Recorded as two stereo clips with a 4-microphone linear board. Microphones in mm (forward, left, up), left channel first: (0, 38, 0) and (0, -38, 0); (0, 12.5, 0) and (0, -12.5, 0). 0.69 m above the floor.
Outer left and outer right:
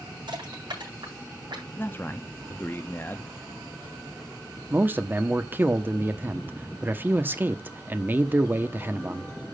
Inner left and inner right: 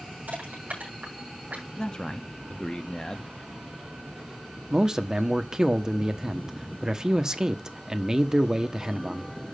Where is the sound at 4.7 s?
25° right (ahead or behind), 1.2 m.